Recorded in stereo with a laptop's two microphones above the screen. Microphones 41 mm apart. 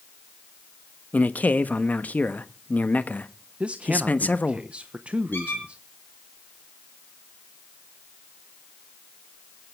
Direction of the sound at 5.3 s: 60° left (ahead or behind).